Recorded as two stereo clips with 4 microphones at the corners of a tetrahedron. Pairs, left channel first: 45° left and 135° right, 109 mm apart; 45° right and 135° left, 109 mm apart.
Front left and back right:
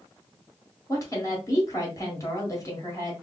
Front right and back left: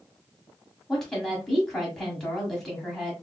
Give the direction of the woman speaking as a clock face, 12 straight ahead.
11 o'clock.